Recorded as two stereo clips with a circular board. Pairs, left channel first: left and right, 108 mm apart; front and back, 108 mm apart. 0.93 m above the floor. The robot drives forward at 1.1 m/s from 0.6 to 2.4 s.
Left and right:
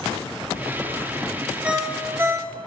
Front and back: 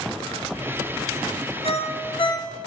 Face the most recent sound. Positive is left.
turn(degrees=-40)